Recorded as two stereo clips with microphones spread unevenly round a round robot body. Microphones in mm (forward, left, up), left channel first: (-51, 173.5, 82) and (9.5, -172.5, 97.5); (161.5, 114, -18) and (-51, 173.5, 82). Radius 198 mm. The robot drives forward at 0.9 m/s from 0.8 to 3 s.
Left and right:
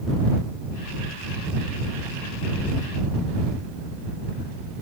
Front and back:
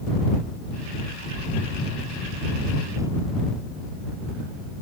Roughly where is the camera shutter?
No camera shutter in this recording.